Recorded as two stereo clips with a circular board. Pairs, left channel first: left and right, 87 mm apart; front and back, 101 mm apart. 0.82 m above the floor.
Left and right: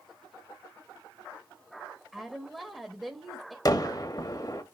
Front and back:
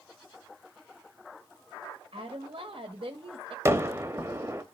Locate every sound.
2.1 s a woman speaking: straight behind, 1.1 m
3.6 s a gunshot: 120° left, 0.9 m